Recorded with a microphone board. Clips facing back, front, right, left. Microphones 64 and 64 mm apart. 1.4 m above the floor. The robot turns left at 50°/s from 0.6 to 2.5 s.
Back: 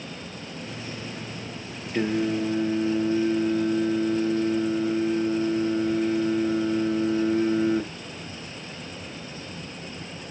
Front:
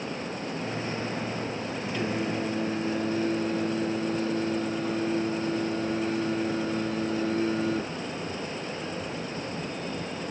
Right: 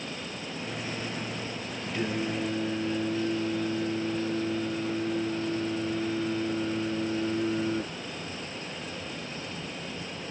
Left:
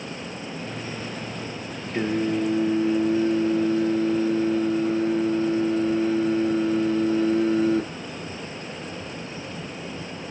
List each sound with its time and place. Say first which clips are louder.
1.9 s singing: back 6 dB, left 7 dB; 140° left, 1.0 m; by 7.8 s 110° left, 1.0 m